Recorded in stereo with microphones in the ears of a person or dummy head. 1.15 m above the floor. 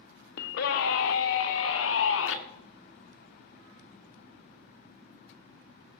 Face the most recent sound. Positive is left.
turn(degrees=85)